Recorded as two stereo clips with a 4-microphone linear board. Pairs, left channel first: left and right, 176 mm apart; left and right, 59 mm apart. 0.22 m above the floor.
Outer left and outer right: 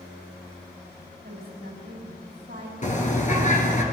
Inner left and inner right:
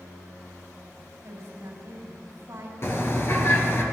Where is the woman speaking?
70° right (ahead or behind), 6 m.